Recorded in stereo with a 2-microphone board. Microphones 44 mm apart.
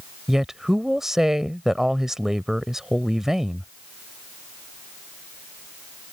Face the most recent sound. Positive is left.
turn(degrees=-10)  # may be behind; listen again after turning